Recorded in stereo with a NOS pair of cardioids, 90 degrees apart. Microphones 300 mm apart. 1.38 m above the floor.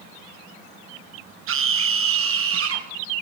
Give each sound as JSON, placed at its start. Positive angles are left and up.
{"t": 1.5, "sound": "a scream", "azimuth_deg": -50, "distance_m": 2.0}